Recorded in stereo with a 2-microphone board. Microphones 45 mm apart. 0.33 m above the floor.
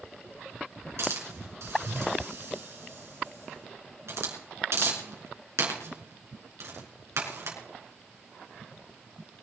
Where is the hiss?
75° right (ahead or behind), 4 m.